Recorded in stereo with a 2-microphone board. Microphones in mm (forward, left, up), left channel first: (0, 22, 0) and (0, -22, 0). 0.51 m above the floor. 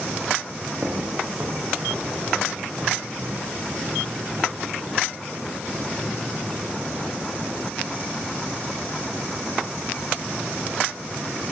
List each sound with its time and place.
0.8 s footsteps: 40° right (ahead or behind), 4 m